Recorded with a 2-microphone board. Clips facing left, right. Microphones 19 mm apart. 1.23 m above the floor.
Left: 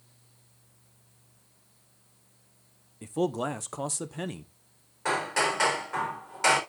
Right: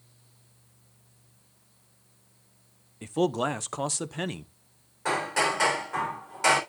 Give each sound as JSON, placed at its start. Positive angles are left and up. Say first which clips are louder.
{"t": 3.0, "sound": "a man speaking", "louder": "right 3 dB", "side_deg": -35, "distance_m": 0.6}
{"t": 5.0, "sound": "hammering", "louder": "right 1 dB", "side_deg": 10, "distance_m": 3.5}